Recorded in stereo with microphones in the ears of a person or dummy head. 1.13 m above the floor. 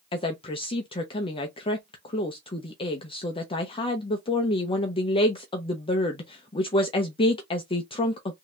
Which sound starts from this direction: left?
A woman speaking, at 0.1 s.